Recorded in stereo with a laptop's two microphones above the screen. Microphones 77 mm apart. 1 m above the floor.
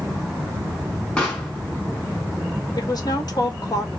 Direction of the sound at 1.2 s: 10° left (ahead or behind).